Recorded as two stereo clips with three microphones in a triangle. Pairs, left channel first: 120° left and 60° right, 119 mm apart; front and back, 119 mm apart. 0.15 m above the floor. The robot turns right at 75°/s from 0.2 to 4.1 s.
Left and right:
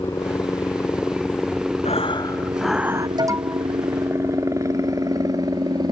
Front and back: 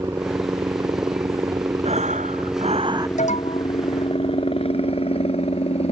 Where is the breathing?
150° left; by 3.1 s 120° right.